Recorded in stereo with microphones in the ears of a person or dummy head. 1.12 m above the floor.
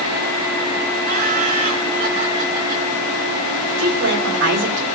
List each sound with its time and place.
1.1 s laughter: 35° right (ahead or behind), 3 m
3.8 s a woman speaking: 55° right (ahead or behind), 4.5 m